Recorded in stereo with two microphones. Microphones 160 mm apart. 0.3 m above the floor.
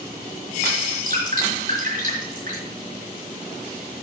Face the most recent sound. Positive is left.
turn(degrees=-60)  # may be behind; listen again after turning